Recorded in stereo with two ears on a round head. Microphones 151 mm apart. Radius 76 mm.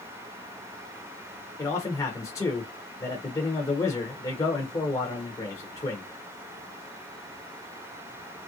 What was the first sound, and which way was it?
A man speaking, 20° left (ahead or behind).